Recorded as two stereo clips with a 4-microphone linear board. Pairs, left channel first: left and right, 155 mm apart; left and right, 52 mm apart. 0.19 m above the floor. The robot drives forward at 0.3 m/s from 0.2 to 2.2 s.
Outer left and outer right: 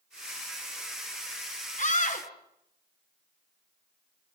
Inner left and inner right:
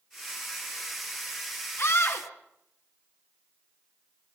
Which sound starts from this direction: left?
A scream, at 1.8 s.